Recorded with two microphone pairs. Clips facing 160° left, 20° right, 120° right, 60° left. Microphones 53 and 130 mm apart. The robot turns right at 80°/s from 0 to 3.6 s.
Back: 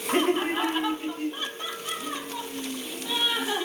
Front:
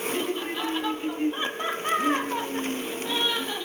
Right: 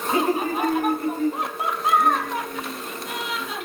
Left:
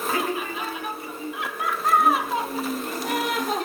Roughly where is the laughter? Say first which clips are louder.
Back 10 dB, right 8 dB; behind.